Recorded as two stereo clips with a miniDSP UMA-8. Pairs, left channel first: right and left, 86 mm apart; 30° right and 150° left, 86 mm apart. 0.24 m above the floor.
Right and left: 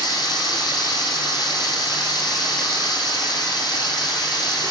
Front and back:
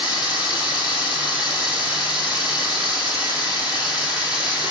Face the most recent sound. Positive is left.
turn(degrees=-130)